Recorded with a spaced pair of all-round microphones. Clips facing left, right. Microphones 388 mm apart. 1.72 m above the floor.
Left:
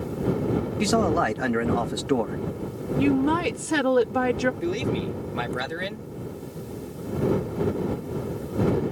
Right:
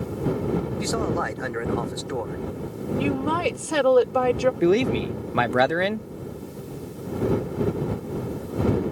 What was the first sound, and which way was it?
A man speaking, 75° left (ahead or behind).